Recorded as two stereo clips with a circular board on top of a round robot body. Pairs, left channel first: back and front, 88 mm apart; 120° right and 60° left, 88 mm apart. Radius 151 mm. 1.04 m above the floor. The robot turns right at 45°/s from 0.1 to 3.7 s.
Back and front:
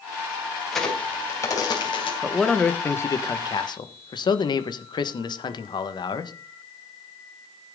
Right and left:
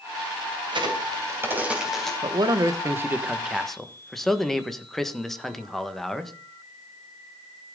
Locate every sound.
0.7 s a crack: 95° left, 3 m; by 2.1 s 155° left, 3 m
2.2 s a man speaking: 85° left, 1.6 m; by 6.3 s 155° left, 1.6 m